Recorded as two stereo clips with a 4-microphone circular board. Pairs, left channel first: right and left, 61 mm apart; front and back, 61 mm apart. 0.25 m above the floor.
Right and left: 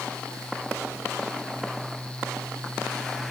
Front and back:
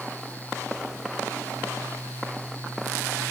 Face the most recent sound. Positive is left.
No sound to turn to.